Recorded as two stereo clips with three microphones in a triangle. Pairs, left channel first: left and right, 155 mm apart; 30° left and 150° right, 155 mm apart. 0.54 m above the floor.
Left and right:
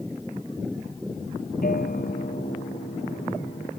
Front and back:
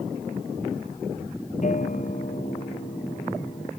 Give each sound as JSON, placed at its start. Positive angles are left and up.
{"t": 1.6, "sound": "a guitar", "azimuth_deg": 65}